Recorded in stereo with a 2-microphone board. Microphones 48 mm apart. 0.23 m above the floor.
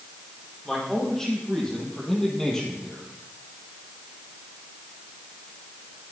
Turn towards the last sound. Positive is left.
turn(degrees=10)  # may be behind; listen again after turning